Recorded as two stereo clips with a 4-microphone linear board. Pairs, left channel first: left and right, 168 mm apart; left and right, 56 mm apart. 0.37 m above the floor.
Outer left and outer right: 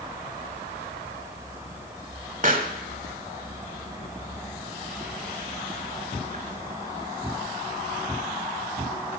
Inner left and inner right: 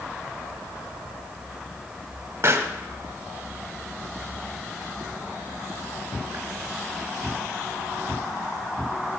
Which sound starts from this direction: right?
A pop, at 2.4 s.